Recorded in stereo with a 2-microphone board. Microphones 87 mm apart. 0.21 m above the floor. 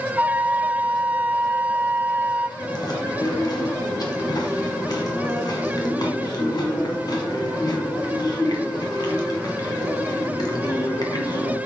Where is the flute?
20° right (ahead or behind), 0.6 m.